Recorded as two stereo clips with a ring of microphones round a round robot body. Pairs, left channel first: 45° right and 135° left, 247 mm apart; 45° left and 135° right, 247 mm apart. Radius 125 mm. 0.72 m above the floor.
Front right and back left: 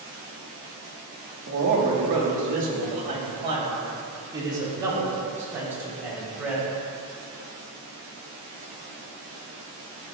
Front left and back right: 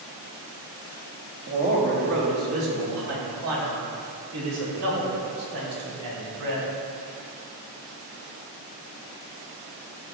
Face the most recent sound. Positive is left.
turn(degrees=-140)